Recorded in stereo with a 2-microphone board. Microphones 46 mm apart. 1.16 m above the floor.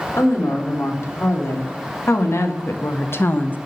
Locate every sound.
0.2 s a woman speaking: 85° left, 3.5 m; by 3.6 s 40° left (ahead or behind), 0.9 m